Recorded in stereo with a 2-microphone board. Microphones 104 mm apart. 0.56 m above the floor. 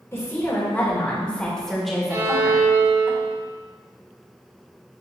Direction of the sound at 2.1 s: 35° right (ahead or behind).